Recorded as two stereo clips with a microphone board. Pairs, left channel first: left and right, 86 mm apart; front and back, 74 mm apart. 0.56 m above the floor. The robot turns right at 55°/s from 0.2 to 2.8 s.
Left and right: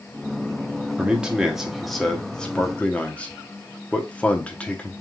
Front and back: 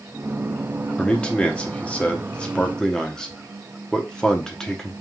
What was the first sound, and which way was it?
A man speaking, 50° right.